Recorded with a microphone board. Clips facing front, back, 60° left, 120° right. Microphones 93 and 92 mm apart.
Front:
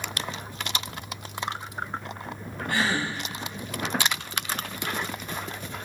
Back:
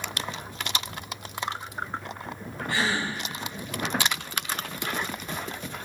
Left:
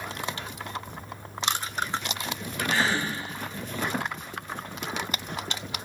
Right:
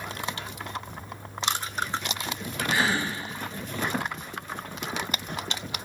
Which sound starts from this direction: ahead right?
A gasp, at 2.7 s.